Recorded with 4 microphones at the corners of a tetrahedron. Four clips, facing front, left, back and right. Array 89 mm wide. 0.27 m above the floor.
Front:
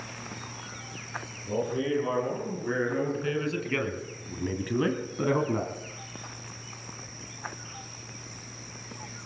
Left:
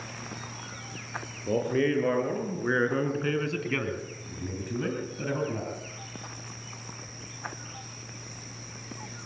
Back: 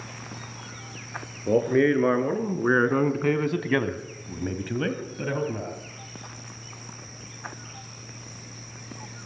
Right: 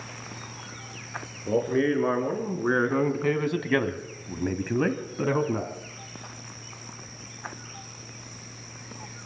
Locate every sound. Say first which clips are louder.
1.5 s a man speaking: right 2 dB, back 8 dB; 175° right, 5 m; by 5.7 s 45° right, 2.5 m